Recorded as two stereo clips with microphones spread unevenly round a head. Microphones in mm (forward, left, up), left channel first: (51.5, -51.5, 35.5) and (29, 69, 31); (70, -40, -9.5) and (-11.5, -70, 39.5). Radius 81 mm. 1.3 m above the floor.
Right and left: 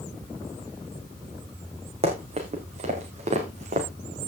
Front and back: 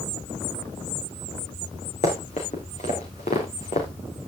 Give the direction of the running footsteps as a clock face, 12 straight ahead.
10 o'clock.